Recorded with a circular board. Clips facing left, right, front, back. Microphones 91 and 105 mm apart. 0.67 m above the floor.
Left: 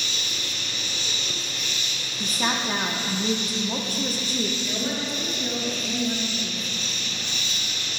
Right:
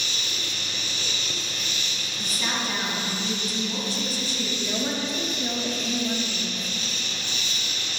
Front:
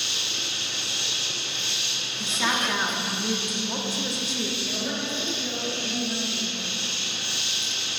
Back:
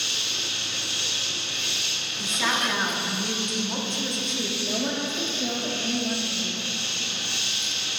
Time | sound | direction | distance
0.0 | an insect | 60° right | 3 m
2.2 | a woman speaking | 80° left | 1.1 m
4.6 | a woman speaking | 150° right | 1.4 m